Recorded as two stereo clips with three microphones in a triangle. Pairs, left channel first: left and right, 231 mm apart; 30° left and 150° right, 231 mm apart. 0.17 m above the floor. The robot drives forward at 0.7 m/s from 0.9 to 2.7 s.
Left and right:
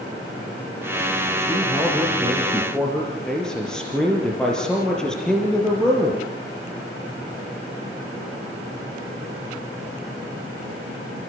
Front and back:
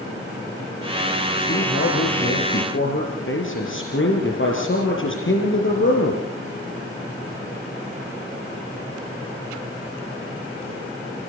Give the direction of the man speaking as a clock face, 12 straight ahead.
12 o'clock.